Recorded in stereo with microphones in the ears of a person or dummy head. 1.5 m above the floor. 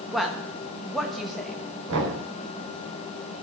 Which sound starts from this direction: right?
Knocking, at 1.9 s.